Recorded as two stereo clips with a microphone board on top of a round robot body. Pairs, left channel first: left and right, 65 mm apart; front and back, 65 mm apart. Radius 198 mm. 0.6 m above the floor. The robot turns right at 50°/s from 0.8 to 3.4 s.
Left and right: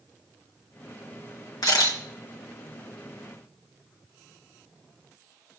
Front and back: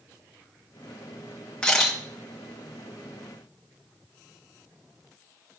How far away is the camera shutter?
About 2.5 m.